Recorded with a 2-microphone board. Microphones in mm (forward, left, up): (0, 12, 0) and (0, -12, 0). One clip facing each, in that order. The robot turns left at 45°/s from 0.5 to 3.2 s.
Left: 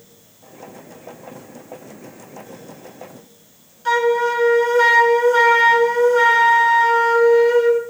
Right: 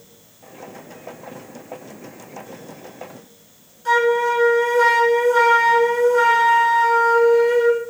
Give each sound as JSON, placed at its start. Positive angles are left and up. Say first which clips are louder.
{"t": 3.9, "sound": "a flute", "louder": "even", "side_deg": 30, "distance_m": 0.7}